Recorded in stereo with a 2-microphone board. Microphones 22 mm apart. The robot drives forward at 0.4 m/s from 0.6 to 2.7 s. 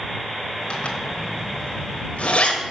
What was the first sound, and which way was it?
A zipper, 55° left (ahead or behind).